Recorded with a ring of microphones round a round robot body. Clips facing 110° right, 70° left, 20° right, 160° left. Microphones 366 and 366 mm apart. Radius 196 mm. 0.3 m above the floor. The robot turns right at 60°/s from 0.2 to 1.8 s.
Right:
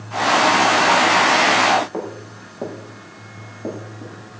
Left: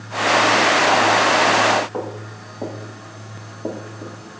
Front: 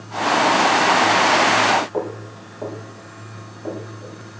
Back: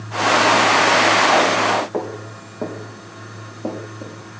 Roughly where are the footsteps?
Behind.